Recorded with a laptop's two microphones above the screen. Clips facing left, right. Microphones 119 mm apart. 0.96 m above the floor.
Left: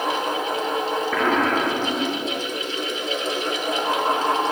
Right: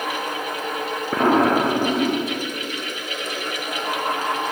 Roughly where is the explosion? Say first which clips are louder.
Right 6 dB; right.